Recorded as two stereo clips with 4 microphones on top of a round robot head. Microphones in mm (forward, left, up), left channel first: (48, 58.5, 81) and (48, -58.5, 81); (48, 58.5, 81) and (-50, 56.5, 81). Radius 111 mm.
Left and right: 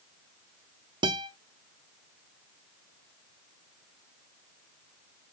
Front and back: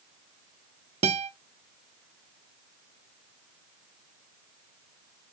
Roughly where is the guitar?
Behind right.